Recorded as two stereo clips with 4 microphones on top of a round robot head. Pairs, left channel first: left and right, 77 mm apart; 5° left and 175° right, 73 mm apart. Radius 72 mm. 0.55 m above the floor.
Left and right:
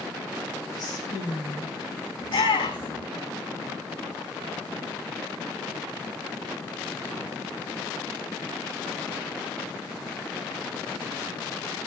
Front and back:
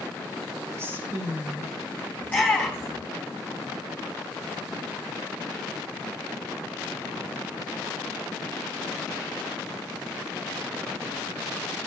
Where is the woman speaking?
135° left, 3.5 m.